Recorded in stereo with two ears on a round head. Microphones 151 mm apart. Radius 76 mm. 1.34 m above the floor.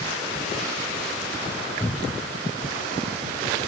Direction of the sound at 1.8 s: Centre (ahead or behind).